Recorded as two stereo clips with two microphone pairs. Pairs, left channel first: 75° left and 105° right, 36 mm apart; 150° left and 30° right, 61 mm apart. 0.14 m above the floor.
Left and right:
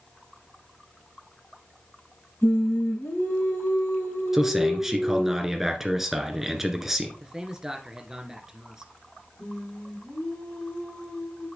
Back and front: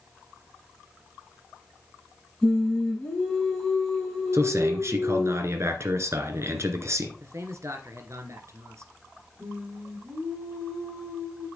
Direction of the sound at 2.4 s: 70° left.